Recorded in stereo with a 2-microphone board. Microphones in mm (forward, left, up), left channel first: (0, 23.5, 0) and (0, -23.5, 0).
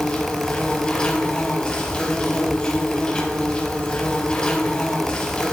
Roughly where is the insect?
Left.